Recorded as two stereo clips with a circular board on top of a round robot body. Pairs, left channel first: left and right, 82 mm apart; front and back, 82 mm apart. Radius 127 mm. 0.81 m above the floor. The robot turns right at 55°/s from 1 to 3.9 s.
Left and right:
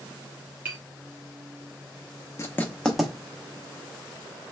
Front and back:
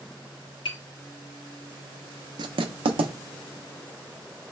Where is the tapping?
20° right, 1.6 m.